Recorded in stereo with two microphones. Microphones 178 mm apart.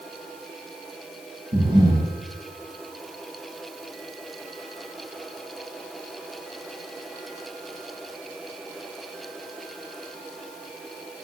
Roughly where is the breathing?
Right.